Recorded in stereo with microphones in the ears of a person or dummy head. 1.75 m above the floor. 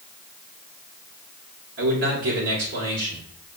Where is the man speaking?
65° right (ahead or behind), 1.5 m.